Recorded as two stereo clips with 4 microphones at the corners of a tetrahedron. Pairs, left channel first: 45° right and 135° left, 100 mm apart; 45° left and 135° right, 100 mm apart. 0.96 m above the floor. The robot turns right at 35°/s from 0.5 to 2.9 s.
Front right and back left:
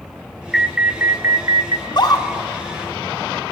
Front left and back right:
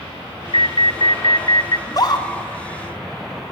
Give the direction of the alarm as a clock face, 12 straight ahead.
10 o'clock.